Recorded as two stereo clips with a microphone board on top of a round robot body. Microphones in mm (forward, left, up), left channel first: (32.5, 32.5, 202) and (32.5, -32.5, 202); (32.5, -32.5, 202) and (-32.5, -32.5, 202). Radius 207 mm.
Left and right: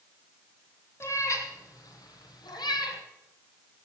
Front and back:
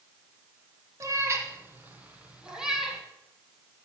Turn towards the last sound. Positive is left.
turn(degrees=90)